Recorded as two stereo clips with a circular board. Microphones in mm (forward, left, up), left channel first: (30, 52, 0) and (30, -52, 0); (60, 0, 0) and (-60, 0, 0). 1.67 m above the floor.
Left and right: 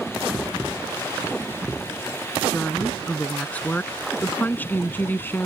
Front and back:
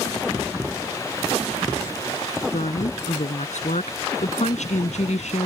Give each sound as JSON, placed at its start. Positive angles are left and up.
{"t": 2.5, "sound": "a woman speaking", "azimuth_deg": 10}